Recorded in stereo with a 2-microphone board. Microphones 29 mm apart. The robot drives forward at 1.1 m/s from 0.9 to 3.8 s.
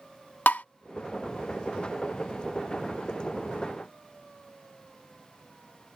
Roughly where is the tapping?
Left.